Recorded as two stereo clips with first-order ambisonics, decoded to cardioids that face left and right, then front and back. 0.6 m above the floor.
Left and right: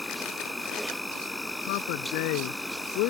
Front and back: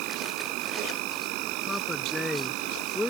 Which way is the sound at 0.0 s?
170° left.